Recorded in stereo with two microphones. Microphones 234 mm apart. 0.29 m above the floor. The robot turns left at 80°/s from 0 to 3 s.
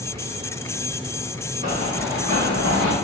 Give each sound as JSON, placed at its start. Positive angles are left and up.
{"t": 1.6, "sound": "running footsteps", "side_deg": 40, "distance_m": 1.9}